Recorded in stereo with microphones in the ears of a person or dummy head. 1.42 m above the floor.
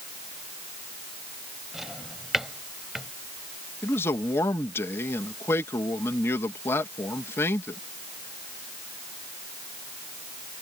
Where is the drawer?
5° right (ahead or behind).